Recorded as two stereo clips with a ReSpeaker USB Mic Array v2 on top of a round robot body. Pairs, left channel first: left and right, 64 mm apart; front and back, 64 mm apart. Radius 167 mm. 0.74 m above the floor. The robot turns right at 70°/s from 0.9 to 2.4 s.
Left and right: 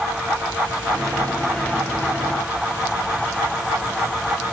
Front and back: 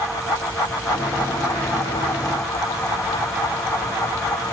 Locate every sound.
Only background noise.